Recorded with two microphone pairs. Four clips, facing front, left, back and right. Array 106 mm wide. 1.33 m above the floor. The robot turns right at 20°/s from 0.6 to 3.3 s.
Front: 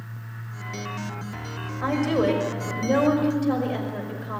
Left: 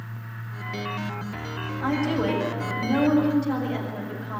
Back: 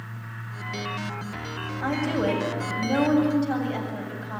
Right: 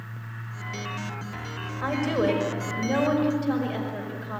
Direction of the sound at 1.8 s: 40° right.